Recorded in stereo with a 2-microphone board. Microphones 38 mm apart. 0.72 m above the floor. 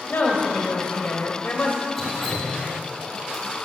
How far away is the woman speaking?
About 3 m.